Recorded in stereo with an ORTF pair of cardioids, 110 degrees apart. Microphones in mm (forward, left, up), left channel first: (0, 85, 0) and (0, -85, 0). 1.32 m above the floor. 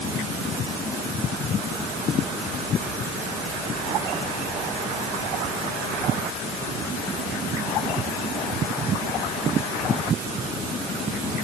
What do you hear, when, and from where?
Only background noise.